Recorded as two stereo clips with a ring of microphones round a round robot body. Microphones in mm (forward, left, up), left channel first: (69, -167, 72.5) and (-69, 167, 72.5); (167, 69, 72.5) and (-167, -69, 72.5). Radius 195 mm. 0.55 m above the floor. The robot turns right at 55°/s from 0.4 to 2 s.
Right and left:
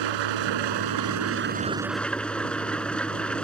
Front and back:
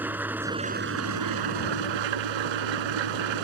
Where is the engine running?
115° left; by 3.4 s 155° right.